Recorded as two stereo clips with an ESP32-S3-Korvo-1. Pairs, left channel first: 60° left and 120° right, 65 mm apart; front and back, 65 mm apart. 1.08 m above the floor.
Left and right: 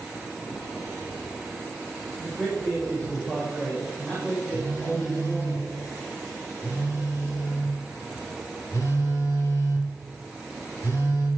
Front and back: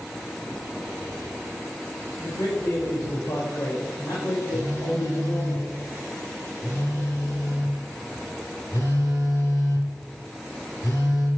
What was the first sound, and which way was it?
A man speaking, 15° right.